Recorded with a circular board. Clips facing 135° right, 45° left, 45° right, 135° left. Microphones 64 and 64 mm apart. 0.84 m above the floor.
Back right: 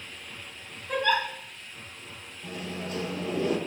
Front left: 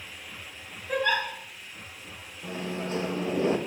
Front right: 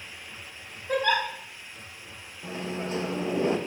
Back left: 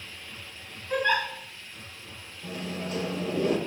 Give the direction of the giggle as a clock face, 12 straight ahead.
1 o'clock.